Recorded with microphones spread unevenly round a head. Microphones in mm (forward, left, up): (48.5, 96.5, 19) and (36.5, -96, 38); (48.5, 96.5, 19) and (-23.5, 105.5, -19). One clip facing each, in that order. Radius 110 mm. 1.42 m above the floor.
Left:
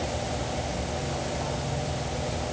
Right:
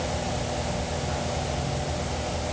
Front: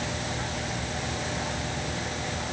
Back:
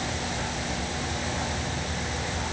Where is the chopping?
No chopping in this recording.